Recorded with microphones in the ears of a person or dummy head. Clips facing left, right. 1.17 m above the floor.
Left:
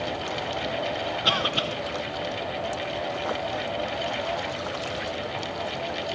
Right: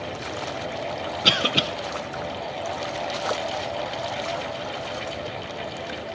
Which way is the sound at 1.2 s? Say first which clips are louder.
Right 5 dB; 30° right (ahead or behind).